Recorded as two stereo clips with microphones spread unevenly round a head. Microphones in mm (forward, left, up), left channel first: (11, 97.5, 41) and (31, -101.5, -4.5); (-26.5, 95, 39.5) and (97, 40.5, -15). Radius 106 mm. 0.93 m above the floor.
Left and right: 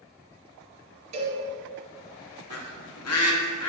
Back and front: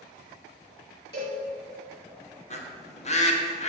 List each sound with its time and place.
1.1 s a cowbell: 150° right, 1.7 m
2.5 s a bird: 115° left, 1.0 m